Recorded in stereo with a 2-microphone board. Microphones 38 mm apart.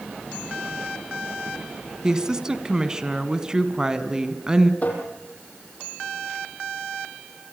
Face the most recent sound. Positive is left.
turn(degrees=40)  # may be behind; listen again after turning